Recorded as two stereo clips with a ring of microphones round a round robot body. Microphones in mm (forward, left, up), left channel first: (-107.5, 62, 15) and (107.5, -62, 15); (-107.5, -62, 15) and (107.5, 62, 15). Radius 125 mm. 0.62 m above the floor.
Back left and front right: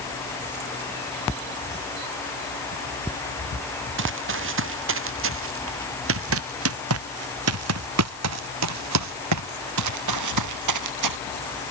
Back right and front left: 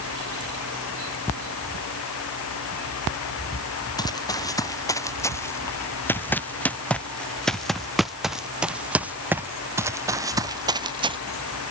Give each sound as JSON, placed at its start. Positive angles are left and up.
{"t": 4.0, "sound": "running footsteps", "azimuth_deg": -75}